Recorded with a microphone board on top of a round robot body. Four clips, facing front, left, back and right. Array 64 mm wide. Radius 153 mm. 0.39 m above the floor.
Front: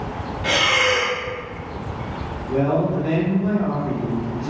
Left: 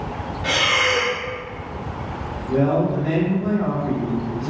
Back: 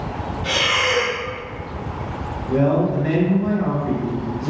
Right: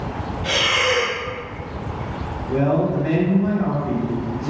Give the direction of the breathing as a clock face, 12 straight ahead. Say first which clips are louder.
Even, front 2 dB; 11 o'clock.